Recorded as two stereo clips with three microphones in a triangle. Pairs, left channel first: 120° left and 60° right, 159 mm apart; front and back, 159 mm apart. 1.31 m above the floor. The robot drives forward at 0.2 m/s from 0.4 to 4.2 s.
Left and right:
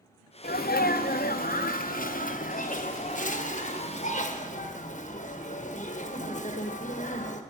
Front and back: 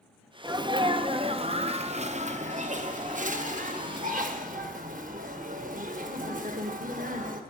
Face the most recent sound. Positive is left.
turn(degrees=155)